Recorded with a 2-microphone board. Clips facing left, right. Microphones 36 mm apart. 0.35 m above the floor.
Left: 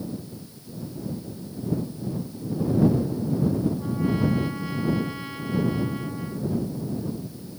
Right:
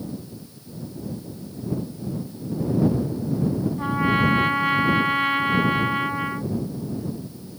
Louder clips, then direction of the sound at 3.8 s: Right 4 dB; 60° right (ahead or behind).